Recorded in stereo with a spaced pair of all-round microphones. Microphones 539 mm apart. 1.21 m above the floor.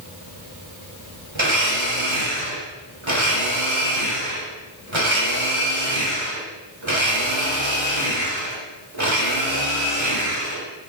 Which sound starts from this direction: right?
A blender, at 1.4 s.